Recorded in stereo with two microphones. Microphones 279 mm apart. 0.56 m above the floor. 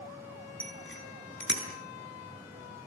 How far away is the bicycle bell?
About 4 m.